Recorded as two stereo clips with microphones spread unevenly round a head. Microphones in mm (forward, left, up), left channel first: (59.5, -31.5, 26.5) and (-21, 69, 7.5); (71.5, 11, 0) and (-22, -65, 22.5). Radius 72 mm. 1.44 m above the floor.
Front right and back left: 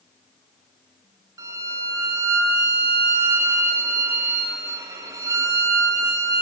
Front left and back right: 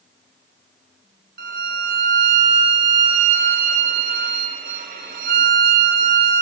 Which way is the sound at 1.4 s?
160° right.